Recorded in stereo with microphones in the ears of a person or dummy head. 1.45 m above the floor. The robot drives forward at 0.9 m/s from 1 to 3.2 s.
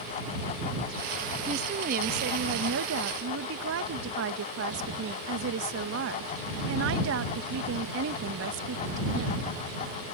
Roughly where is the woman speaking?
Right.